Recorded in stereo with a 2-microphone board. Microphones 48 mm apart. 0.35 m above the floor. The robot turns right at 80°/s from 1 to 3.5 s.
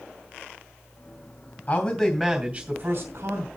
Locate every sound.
1.7 s a man speaking: 125° left, 2.5 m; by 3.5 s 90° right, 2.5 m